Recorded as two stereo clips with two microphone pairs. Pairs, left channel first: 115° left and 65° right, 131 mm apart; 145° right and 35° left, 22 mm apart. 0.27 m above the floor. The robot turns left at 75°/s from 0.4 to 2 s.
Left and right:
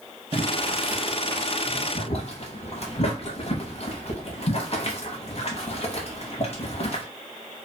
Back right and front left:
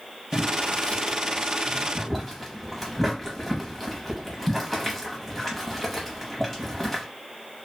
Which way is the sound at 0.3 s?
105° right.